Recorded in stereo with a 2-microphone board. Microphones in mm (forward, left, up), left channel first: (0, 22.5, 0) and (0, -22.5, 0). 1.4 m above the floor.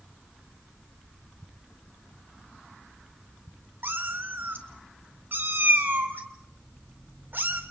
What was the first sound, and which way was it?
A cat meowing, 55° right (ahead or behind).